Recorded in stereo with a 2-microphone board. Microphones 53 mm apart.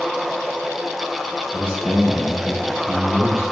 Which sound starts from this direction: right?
A man speaking, at 1.5 s.